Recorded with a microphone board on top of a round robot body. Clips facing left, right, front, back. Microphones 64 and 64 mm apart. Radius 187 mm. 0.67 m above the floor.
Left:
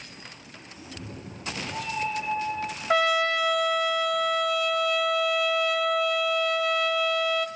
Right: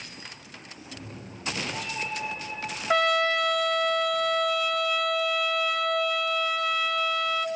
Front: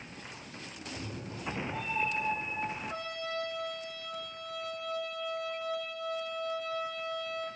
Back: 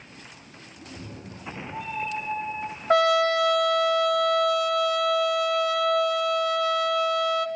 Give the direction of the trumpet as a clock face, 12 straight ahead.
6 o'clock.